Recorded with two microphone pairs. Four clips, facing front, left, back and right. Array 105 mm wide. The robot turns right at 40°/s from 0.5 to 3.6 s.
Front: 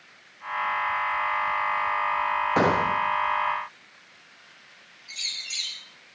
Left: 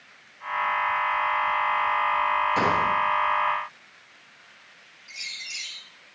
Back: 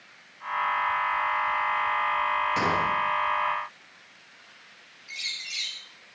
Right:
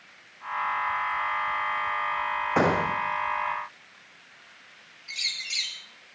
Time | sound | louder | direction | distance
2.6 | a gunshot | left 1 dB, front 3 dB | 45° right | 4 m
5.1 | a bird | right 3 dB, back 2 dB | 75° right | 3 m